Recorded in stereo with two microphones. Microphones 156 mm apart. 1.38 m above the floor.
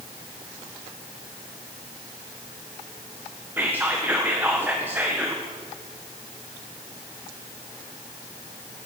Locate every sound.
3.6 s whispering: 15° right (ahead or behind), 1.1 m